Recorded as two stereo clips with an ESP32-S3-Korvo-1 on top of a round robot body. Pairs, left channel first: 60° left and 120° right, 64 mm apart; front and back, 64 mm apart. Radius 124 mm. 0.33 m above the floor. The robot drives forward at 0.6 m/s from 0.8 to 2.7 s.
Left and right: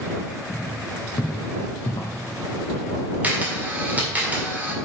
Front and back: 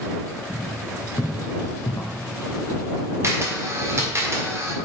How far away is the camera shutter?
About 2.0 m.